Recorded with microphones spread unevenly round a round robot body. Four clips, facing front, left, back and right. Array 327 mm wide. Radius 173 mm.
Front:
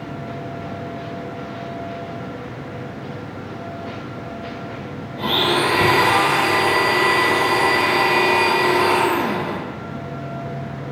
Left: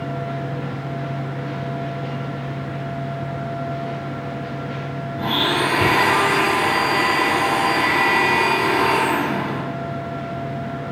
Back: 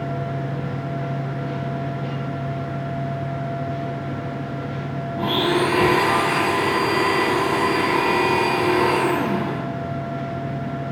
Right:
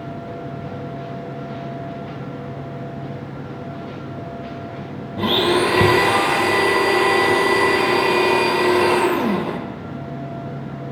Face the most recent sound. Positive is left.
turn(degrees=-85)